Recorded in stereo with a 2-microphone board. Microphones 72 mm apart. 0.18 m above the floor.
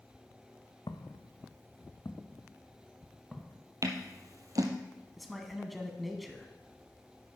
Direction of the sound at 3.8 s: 50° right (ahead or behind).